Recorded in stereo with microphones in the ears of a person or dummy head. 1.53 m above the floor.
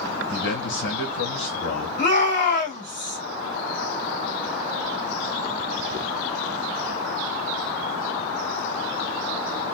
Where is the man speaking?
70° left (ahead or behind), 1.8 m.